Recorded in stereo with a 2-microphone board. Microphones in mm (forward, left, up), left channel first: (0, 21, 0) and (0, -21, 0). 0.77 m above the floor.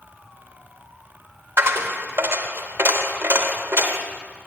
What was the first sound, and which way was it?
A dropped coin, 65° right (ahead or behind).